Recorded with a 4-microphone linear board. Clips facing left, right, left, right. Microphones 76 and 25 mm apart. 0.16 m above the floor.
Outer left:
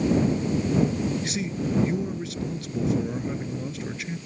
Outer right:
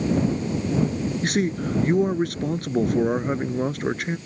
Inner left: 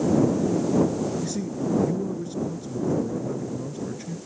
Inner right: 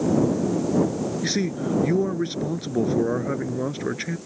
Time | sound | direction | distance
1.2 | a man speaking | 55° right (ahead or behind) | ?